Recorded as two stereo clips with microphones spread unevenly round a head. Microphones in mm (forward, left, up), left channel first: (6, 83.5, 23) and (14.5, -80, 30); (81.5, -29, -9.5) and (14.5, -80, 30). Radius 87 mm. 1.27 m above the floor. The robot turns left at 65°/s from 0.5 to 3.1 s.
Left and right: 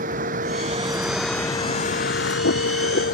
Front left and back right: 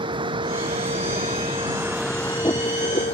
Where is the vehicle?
130° right; by 3.1 s 60° left.